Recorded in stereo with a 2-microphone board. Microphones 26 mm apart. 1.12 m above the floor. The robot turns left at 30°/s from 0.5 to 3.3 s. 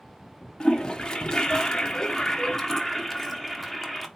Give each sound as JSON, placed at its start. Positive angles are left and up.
{"t": 0.6, "sound": "a toilet flushing", "azimuth_deg": 90, "distance_m": 0.7}